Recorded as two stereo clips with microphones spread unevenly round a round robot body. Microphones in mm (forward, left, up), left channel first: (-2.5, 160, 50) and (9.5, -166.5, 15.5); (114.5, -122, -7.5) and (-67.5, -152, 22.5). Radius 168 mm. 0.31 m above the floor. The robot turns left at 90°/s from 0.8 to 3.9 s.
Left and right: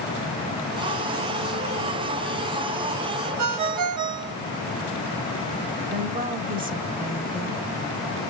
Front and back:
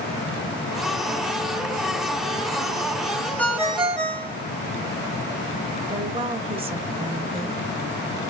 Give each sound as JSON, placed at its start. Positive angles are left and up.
{"t": 3.4, "sound": "a ringtone", "azimuth_deg": -70, "distance_m": 0.9}
{"t": 5.9, "sound": "a woman speaking", "azimuth_deg": -120, "distance_m": 1.1}